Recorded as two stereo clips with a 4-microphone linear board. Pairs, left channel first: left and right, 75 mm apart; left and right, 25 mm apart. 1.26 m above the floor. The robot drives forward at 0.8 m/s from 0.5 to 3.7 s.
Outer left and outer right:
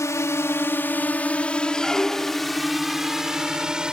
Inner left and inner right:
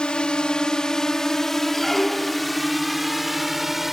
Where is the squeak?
10° left (ahead or behind); by 2.6 s 5° left (ahead or behind).